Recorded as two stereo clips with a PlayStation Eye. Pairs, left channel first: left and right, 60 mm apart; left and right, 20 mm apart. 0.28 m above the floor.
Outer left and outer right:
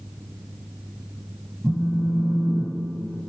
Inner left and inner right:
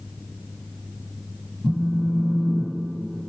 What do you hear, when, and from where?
1.6 s a phone buzzing: 5° left (ahead or behind), 1.6 m